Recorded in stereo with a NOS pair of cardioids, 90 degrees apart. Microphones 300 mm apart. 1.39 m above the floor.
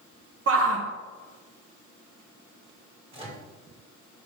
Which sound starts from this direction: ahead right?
A shout, at 0.5 s.